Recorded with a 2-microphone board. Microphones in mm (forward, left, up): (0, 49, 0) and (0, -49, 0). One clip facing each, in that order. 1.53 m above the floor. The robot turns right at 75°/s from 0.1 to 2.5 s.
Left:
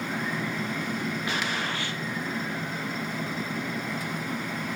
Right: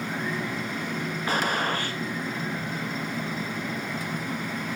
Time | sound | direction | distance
1.3 | a gunshot | 115° right | 0.5 m